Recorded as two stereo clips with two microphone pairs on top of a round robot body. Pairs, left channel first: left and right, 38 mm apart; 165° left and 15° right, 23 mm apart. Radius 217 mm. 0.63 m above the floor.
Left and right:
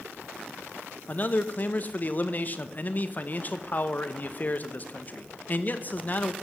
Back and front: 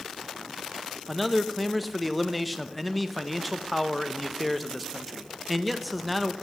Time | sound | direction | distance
1.1 | a man speaking | 75° left | 1.1 m